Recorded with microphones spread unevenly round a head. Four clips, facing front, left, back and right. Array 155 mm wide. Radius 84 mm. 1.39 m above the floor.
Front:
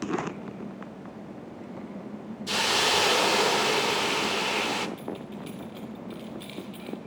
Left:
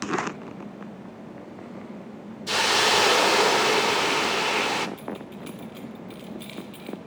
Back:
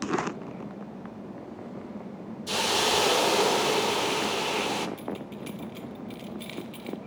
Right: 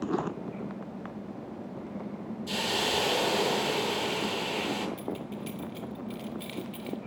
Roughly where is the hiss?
Left.